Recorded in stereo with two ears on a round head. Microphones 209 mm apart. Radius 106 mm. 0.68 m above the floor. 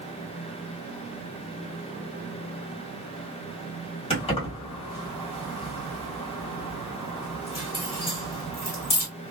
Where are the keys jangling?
25° left (ahead or behind), 1.6 m.